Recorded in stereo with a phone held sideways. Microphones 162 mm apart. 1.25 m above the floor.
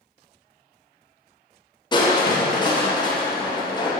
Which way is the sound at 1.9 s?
25° left (ahead or behind).